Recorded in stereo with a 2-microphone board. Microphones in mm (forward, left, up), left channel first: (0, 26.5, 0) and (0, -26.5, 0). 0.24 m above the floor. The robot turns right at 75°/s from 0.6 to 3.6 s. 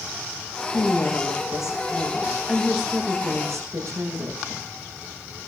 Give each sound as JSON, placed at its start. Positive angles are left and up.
{"t": 0.7, "sound": "a woman speaking", "azimuth_deg": 35, "distance_m": 8.0}